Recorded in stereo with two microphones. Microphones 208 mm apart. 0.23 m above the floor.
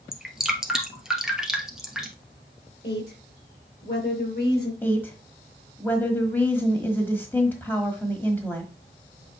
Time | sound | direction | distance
0.1 | dripping | 5° right (ahead or behind) | 1.4 m
2.8 | a woman speaking | 55° left (ahead or behind) | 4 m
4.8 | a woman speaking | 10° left (ahead or behind) | 1.2 m